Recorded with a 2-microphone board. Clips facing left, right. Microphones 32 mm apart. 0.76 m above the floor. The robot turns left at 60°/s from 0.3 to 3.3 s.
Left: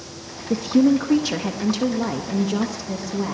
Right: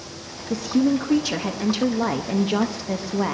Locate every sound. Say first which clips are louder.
0.5 s a woman speaking: left 3 dB; 50° left, 0.7 m; by 3.3 s 115° right, 0.7 m